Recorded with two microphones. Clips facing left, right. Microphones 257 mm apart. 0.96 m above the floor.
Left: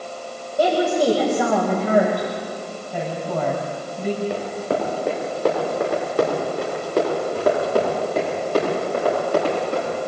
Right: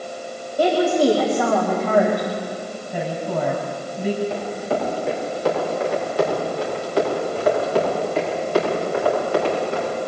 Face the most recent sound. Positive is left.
turn(degrees=40)  # may be behind; listen again after turning